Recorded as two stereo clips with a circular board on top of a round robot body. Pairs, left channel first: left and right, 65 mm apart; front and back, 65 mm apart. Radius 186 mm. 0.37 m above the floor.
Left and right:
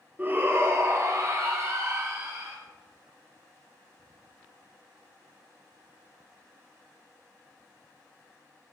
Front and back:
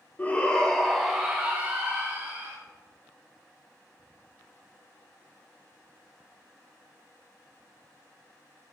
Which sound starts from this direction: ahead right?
A shout, at 0.2 s.